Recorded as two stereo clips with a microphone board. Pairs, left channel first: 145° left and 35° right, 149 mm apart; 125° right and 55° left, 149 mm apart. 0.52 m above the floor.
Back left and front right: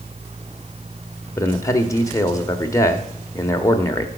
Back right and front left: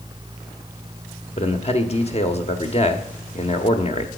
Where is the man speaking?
150° right, 1.2 m.